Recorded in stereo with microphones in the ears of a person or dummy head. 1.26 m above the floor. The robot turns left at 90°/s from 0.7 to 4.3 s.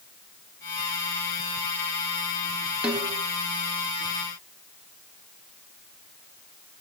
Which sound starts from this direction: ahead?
A snare drum, at 2.8 s.